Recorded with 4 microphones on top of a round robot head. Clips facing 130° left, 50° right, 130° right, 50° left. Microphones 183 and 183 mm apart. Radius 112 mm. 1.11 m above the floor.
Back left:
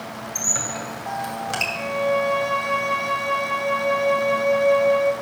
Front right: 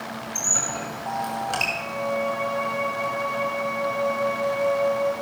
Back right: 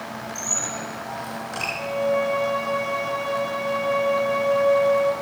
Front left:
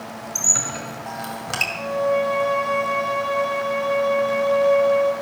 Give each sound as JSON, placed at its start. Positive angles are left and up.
{"t": 0.3, "sound": "a squeak", "azimuth_deg": 45, "distance_m": 2.5}
{"t": 1.8, "sound": "a violin", "azimuth_deg": 125, "distance_m": 1.6}